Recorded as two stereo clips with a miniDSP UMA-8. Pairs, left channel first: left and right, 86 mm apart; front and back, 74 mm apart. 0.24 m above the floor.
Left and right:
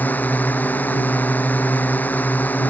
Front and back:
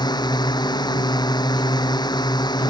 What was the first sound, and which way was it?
A drone, 20° left.